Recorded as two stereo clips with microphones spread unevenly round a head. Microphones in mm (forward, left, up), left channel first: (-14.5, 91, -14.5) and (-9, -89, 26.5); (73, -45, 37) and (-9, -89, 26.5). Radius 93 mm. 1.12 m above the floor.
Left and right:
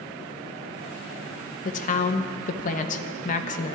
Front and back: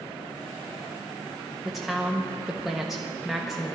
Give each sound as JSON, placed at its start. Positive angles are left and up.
{"t": 1.6, "sound": "a woman speaking", "azimuth_deg": 125, "distance_m": 0.8}